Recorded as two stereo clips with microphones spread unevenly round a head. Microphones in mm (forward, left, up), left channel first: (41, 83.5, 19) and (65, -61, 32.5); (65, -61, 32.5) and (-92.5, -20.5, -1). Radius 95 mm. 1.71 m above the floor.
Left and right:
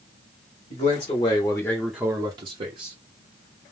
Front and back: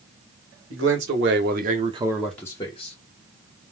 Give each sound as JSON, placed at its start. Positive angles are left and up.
{"t": 0.7, "sound": "a man speaking", "azimuth_deg": 160, "distance_m": 1.3}